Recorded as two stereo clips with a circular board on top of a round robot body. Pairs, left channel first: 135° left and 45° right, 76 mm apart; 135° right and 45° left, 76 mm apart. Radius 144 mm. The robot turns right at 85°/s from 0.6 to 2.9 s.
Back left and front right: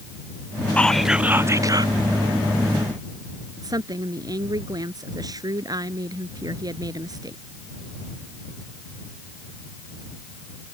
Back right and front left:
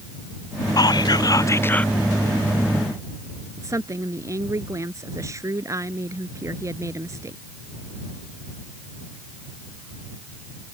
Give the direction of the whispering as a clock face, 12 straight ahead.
5 o'clock.